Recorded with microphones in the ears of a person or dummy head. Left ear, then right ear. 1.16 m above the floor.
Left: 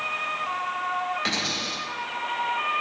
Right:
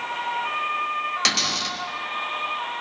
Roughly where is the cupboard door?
Right.